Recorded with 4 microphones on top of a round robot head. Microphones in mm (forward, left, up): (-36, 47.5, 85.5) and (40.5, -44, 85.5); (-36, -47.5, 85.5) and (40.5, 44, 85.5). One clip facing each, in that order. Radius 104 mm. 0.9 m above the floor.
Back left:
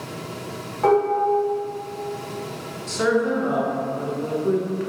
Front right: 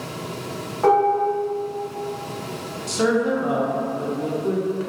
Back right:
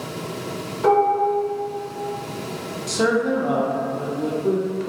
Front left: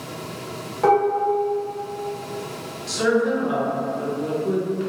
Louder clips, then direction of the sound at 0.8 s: Front right 1 dB, back right 1 dB; 40° left.